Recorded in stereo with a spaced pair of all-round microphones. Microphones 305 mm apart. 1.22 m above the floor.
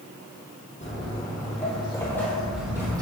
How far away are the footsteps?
About 1.5 m.